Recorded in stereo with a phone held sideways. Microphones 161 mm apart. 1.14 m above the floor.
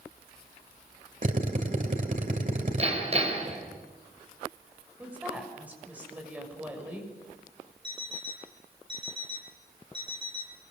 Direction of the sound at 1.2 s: 55° right (ahead or behind).